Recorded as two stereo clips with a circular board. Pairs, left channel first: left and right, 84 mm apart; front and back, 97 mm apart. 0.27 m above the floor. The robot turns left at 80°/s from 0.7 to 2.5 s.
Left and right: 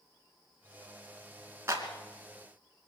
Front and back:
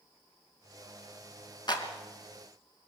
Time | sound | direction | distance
1.7 | a clap | 35° right | 2.5 m